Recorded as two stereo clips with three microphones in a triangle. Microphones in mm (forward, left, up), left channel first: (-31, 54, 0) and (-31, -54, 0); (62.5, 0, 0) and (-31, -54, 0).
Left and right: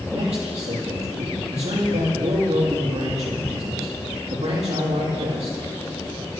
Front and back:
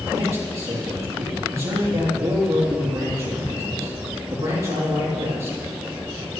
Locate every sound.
0.1 s a man speaking: 85° right, 7.5 m